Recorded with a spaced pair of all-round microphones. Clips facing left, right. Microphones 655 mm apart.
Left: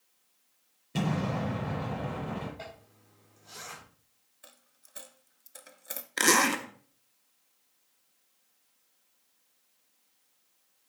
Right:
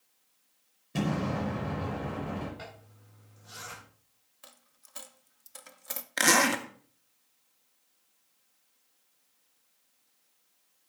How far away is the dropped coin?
About 0.5 m.